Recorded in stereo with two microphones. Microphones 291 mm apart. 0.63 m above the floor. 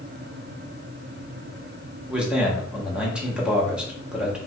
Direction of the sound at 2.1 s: 5° right (ahead or behind).